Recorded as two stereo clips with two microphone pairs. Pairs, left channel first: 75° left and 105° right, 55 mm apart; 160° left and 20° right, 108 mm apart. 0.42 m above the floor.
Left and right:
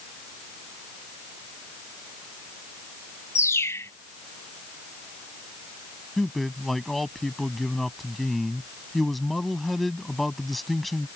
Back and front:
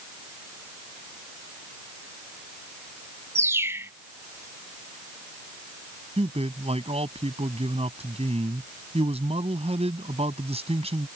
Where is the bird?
45° left.